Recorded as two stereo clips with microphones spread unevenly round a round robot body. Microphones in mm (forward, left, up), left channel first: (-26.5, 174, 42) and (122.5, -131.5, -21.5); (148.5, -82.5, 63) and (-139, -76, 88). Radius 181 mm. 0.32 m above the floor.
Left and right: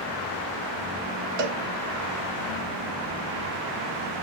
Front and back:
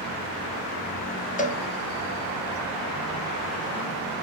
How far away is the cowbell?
About 1.1 m.